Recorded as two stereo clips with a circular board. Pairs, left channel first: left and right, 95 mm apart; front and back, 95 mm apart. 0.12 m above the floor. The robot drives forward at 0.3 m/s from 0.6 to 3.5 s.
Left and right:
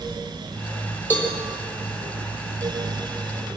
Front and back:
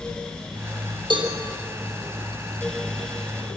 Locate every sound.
1.1 s a cowbell: 160° left, 4 m